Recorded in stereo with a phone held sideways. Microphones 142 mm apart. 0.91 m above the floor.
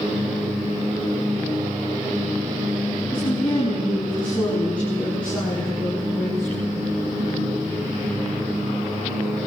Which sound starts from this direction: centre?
A woman speaking, at 3.1 s.